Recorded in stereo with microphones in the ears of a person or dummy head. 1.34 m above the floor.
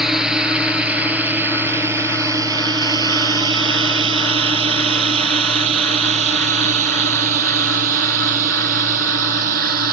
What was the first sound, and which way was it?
A drone, 5° left (ahead or behind).